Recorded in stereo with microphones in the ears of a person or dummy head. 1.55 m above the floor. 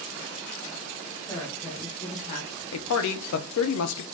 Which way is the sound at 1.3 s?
5° right (ahead or behind).